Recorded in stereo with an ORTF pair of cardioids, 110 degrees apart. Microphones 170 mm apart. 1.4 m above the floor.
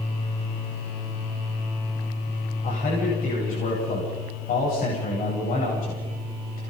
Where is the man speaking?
55° left, 9.5 m.